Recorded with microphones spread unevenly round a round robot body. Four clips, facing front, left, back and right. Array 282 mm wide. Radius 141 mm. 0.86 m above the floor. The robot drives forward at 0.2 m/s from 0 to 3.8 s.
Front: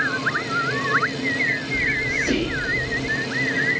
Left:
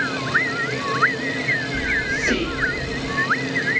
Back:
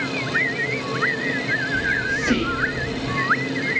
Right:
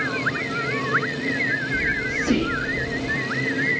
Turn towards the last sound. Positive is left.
turn(degrees=-120)